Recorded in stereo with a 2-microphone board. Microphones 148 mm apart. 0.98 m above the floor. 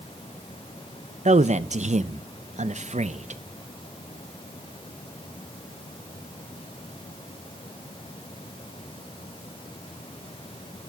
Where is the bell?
No bell in this recording.